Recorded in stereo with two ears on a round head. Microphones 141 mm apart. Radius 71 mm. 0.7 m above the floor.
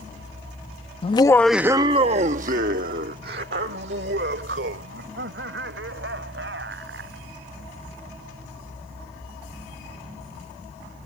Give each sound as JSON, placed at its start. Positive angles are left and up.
{"t": 1.0, "sound": "laughter", "side_deg": 35}